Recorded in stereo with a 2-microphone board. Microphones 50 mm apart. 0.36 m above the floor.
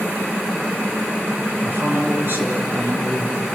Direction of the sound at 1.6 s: 40° right (ahead or behind).